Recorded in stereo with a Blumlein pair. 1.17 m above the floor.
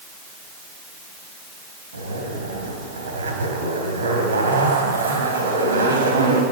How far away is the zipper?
About 3 m.